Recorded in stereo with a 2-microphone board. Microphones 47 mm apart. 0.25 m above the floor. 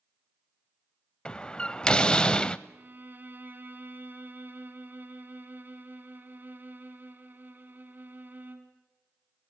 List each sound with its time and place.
1.2 s a door slam: 20° left (ahead or behind), 0.7 m
2.7 s a violin: 40° right (ahead or behind), 2.5 m